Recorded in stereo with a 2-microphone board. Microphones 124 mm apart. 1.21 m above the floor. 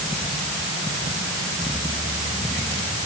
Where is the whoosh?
I don't hear a whoosh.